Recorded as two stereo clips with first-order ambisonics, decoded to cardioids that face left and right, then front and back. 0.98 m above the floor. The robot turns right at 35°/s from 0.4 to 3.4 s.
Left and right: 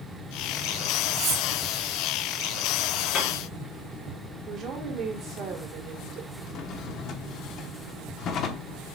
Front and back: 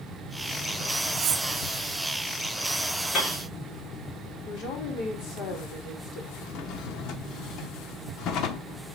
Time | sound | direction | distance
1.1 | cutlery clinking | 140° right | 1.2 m
3.1 | a piano | 45° left | 2.5 m
4.5 | a woman speaking | 25° right | 3.5 m
6.4 | a drawer | 40° left | 1.0 m